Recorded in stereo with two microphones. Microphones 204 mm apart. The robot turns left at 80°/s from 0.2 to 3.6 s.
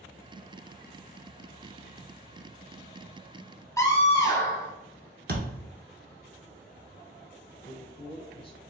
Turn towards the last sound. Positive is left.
turn(degrees=25)  # may be behind; listen again after turning